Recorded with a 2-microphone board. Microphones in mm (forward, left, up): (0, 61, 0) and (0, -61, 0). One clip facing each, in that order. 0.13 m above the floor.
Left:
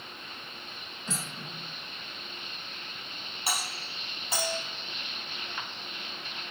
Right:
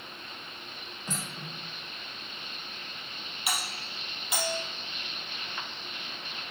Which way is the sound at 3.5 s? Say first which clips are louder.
Even; 35° left (ahead or behind).